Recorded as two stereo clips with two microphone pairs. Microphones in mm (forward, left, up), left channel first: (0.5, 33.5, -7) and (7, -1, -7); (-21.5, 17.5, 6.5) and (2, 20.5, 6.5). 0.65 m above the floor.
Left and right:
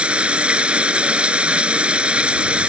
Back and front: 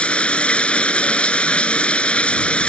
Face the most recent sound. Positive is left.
turn(degrees=-140)